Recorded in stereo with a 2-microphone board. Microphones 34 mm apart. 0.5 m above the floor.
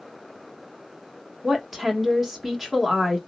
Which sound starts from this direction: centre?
A woman speaking, at 1.4 s.